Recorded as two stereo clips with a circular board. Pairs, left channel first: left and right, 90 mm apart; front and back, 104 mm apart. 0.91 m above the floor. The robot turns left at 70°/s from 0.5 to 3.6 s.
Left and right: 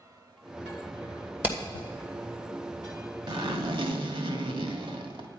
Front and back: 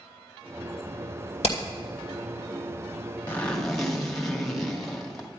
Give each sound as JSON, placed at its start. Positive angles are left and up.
{"t": 1.4, "sound": "hammering", "azimuth_deg": -20, "distance_m": 2.5}
{"t": 3.3, "sound": "a zipper", "azimuth_deg": -65, "distance_m": 1.6}